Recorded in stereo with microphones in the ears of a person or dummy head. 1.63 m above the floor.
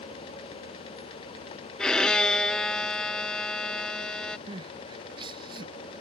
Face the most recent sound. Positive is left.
turn(degrees=-25)  # may be behind; listen again after turning